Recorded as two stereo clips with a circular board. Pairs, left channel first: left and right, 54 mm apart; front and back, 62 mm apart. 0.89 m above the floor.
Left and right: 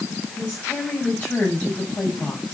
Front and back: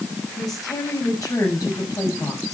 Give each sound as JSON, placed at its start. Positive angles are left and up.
{"t": 0.4, "sound": "a woman speaking", "azimuth_deg": 25, "distance_m": 6.0}